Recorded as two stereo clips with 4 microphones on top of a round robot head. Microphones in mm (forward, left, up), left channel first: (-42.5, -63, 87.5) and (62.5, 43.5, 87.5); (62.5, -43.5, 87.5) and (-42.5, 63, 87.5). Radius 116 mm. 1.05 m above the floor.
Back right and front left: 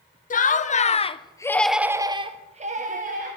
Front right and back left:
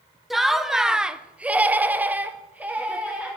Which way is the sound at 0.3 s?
135° right.